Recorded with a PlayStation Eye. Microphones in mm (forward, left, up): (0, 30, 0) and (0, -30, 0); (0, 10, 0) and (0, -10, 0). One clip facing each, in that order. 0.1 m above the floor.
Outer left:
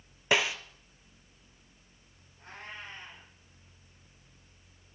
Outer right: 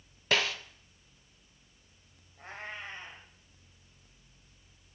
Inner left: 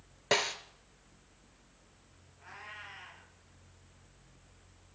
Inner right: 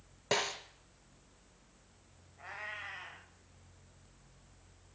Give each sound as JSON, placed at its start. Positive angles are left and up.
{"t": 0.3, "sound": "a snare drum", "side_deg": 15, "distance_m": 0.9}
{"t": 2.4, "sound": "a cat meowing", "side_deg": -85, "distance_m": 3.0}